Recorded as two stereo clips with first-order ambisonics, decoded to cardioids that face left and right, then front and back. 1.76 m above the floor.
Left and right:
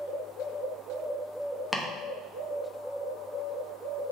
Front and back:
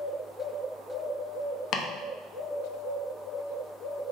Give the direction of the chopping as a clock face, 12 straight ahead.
12 o'clock.